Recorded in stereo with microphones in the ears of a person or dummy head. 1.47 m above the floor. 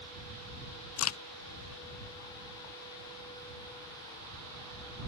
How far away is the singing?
I don't hear singing.